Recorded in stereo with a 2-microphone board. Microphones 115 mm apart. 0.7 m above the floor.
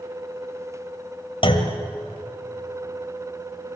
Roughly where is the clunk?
Left.